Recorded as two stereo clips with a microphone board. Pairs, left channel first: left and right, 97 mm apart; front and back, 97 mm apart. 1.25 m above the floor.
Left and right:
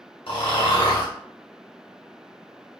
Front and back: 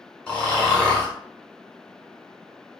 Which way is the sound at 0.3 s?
80° left.